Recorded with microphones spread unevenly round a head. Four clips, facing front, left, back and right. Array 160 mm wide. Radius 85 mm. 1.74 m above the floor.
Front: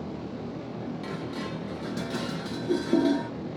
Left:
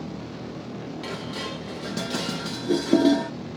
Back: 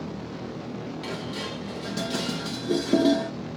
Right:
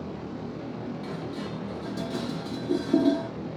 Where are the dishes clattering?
90° left, 1.2 m.